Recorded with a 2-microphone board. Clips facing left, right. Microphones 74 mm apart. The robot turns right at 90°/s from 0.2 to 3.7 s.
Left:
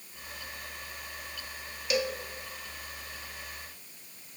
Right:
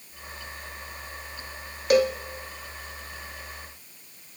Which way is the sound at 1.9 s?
50° right (ahead or behind).